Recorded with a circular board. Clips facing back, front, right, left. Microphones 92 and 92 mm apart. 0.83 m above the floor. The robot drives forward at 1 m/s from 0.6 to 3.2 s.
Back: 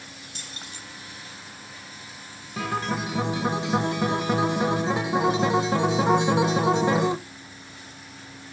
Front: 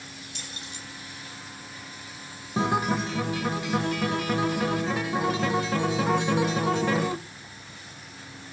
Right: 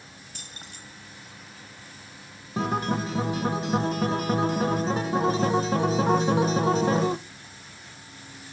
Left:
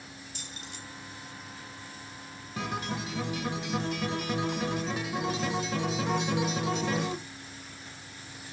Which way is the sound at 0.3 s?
130° right.